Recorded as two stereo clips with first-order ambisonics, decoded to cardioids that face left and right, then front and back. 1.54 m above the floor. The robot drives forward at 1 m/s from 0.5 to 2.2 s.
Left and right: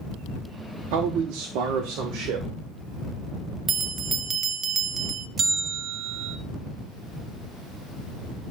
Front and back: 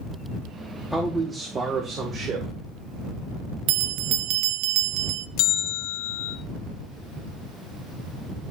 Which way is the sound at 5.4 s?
25° right.